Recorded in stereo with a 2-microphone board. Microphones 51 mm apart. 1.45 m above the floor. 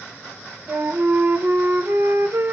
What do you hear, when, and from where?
0.7 s a flute: 50° right (ahead or behind), 1.3 m